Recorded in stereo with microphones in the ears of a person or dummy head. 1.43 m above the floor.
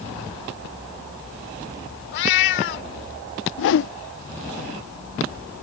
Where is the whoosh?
60° left (ahead or behind).